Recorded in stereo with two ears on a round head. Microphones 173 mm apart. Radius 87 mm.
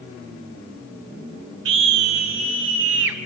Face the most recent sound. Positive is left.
turn(degrees=-75)  # may be behind; listen again after turning